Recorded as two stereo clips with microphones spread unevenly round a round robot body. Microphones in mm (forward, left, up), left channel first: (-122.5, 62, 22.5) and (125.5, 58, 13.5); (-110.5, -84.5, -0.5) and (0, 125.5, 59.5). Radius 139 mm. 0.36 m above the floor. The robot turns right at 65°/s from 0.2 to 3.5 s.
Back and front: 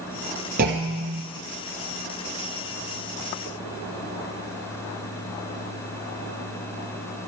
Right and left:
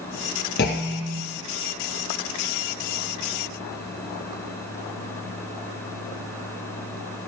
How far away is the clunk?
About 1.1 m.